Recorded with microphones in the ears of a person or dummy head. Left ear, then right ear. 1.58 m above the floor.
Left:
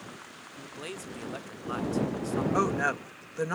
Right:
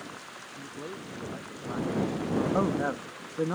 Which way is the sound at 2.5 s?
75° left (ahead or behind).